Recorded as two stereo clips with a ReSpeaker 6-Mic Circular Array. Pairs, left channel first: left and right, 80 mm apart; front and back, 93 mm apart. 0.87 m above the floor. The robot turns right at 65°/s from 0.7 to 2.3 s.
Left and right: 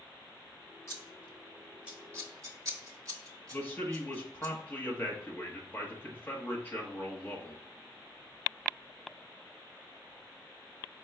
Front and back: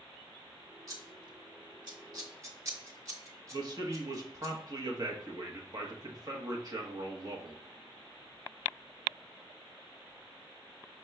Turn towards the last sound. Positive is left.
turn(degrees=150)